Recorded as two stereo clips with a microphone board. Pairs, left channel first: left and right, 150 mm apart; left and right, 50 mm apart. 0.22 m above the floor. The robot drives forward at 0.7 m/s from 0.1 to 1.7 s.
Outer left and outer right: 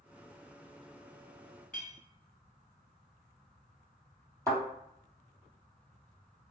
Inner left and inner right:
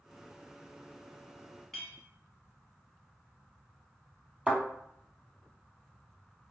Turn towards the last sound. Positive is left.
turn(degrees=-20)  # may be behind; listen again after turning